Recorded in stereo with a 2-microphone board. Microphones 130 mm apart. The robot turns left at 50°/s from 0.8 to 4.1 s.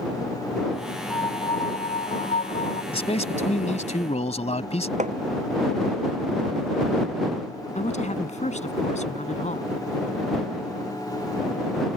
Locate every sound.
1.1 s a piano: 155° left; by 2.8 s 70° left
2.9 s a man speaking: 125° left; by 4.9 s 65° left
5.0 s hammering: 65° right (ahead or behind)
7.8 s a woman speaking: 65° left (ahead or behind)